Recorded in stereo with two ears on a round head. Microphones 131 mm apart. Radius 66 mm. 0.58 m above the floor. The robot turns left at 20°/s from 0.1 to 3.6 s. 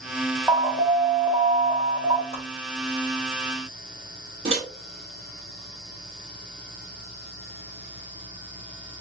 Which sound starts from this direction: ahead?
An alarm, at 0.5 s.